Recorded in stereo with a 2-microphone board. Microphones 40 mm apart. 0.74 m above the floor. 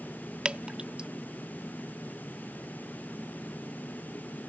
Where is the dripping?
25° right (ahead or behind).